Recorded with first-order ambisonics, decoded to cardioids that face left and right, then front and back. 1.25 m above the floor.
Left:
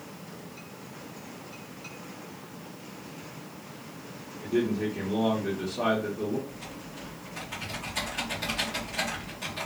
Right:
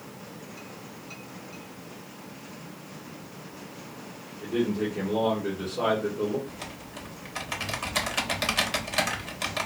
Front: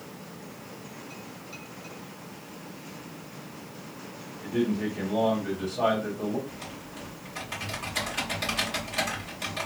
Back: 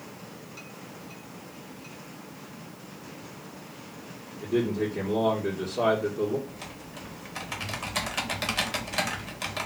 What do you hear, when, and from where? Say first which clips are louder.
4.4 s a man speaking: even, back 2 dB; straight behind, 1.5 m
6.5 s typing on a keyboard: right 2 dB, front 1 dB; 120° right, 0.8 m